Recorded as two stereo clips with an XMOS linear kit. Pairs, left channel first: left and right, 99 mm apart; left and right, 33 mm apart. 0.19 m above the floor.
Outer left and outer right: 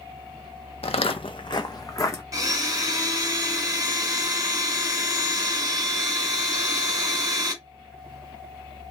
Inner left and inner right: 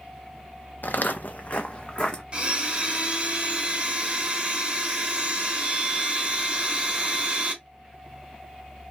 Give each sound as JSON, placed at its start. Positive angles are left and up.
{"t": 0.8, "sound": "footsteps", "side_deg": 80, "distance_m": 0.6}
{"t": 2.3, "sound": "a blender", "side_deg": -35, "distance_m": 1.6}